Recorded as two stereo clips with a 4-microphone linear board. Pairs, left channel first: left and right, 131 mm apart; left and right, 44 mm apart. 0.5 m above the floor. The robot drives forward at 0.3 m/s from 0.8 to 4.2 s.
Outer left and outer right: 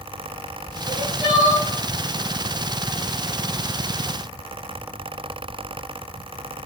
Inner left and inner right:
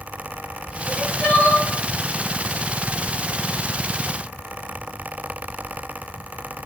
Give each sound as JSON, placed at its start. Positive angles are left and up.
{"t": 0.8, "sound": "crying", "side_deg": 35, "distance_m": 1.4}